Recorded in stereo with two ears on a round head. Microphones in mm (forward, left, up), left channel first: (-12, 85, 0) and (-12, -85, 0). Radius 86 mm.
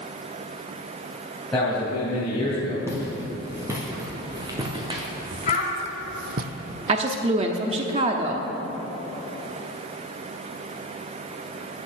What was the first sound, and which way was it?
A man speaking, 5° left (ahead or behind).